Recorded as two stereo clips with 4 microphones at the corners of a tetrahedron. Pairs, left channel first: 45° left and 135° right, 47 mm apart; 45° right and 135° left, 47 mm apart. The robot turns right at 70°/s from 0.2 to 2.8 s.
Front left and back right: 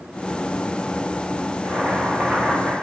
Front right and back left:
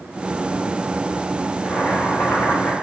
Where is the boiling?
115° right, 0.8 m; by 2.7 s 40° right, 0.8 m.